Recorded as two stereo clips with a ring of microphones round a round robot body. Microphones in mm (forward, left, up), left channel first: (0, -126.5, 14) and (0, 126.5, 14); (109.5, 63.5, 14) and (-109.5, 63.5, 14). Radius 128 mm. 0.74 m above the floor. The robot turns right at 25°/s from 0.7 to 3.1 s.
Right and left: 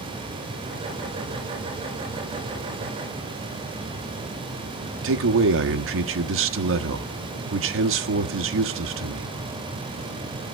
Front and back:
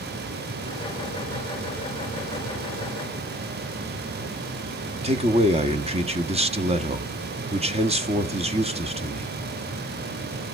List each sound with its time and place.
5.0 s a man speaking: 120° left, 1.2 m